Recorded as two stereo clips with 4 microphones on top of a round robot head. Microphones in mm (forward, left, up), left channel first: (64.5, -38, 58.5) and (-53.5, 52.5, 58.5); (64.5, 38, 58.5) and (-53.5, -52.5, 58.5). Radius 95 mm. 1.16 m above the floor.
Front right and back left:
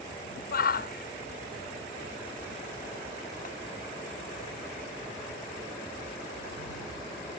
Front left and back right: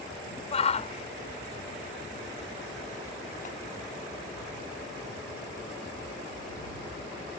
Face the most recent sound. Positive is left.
turn(degrees=0)